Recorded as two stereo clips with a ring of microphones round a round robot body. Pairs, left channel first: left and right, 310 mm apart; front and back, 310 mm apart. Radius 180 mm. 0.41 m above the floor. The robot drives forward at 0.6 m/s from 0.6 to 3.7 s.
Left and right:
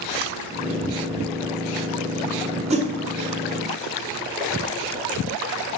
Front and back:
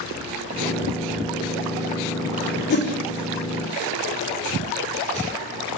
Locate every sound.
2.7 s a whoosh: 30° right, 1.1 m; by 2.9 s 35° right, 1.0 m